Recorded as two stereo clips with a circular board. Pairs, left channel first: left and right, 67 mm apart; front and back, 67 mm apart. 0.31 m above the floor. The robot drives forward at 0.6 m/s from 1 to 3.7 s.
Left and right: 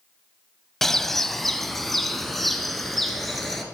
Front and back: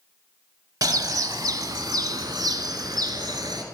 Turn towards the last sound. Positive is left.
turn(degrees=180)